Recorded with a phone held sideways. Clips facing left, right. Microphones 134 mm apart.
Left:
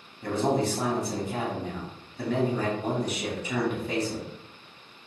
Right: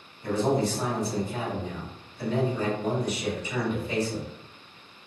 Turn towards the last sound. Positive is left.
turn(degrees=60)  # may be behind; listen again after turning